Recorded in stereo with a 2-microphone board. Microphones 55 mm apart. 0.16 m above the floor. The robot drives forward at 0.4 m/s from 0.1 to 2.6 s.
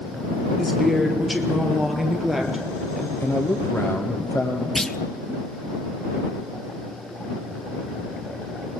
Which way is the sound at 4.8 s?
10° left (ahead or behind).